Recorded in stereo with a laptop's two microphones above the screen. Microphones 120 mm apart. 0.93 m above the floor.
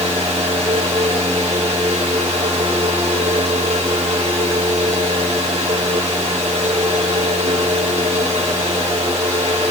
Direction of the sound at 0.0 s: 70° right (ahead or behind).